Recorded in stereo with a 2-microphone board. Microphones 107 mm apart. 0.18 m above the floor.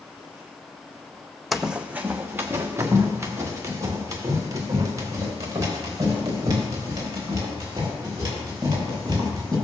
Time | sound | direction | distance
1.5 | running footsteps | centre (ahead or behind) | 0.6 m